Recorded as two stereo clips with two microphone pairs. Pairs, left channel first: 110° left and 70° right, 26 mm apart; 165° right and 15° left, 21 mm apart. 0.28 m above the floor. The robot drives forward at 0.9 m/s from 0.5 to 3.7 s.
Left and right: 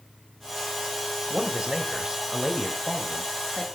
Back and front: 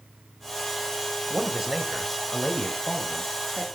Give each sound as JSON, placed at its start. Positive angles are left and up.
{"t": 1.3, "sound": "a man speaking", "azimuth_deg": -30, "distance_m": 1.1}